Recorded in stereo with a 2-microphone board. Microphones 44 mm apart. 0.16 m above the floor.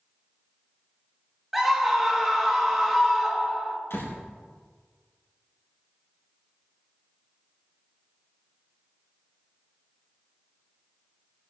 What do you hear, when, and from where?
1.5 s a scream: 5° right (ahead or behind), 3 m
3.9 s a door slam: 65° left (ahead or behind), 4 m